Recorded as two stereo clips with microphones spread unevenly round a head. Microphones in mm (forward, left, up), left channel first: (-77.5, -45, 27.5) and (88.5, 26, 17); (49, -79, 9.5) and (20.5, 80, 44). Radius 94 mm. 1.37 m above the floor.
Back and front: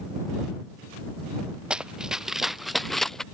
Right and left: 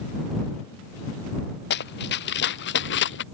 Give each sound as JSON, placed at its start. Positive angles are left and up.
{"t": 1.7, "sound": "running footsteps", "azimuth_deg": -65}